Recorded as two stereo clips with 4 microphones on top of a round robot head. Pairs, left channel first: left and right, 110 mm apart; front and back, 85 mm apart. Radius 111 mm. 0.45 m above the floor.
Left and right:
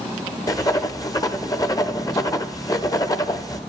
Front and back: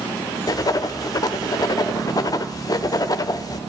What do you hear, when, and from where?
0.5 s writing: 40° left, 0.7 m